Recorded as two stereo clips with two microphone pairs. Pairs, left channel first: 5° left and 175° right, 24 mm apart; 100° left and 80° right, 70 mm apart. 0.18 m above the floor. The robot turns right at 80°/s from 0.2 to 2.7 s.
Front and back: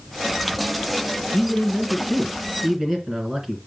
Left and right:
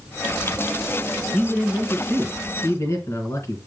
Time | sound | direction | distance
1.3 | a man speaking | 20° left | 2.5 m